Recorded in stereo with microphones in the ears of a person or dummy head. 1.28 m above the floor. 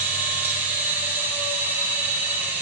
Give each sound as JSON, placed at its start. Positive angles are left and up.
{"t": 0.0, "sound": "a machine running", "side_deg": -5, "distance_m": 1.3}